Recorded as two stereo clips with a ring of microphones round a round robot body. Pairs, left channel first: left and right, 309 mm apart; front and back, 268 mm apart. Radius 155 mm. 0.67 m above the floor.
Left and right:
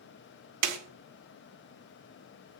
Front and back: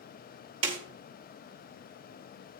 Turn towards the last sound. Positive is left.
turn(degrees=-110)